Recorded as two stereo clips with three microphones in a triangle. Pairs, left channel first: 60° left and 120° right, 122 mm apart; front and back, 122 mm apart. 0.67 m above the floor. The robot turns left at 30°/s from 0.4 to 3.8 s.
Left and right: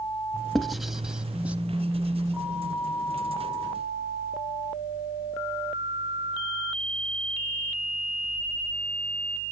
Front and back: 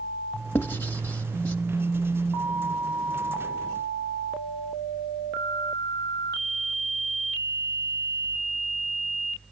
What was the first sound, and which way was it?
Writing, 30° right.